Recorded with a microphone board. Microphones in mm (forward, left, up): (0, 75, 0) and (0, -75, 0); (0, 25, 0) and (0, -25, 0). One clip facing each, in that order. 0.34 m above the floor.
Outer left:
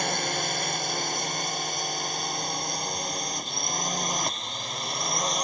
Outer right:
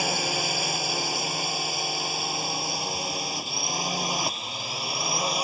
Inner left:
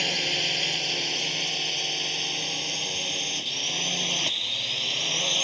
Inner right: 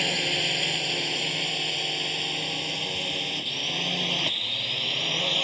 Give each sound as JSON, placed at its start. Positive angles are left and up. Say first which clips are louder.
{"t": 0.0, "sound": "a drone", "louder": "outer right 1 dB, inner right 1 dB", "side_deg": -5}